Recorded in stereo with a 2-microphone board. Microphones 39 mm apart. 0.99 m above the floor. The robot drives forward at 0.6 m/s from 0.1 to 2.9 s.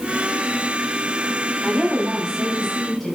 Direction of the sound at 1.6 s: 5° left (ahead or behind).